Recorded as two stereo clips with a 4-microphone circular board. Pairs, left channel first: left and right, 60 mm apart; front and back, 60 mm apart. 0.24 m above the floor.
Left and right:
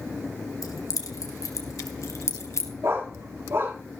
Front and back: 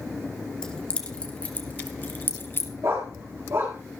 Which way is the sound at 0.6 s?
80° left.